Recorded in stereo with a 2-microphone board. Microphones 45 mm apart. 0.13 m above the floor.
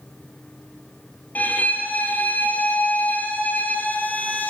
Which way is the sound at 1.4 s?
40° left (ahead or behind).